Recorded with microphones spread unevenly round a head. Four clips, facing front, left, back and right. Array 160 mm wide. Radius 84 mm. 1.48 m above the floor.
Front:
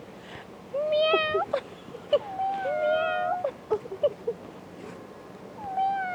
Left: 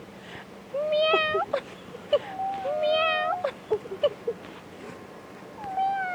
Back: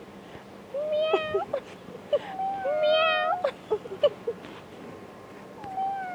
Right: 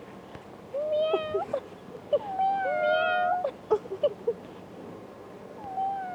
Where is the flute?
No flute in this recording.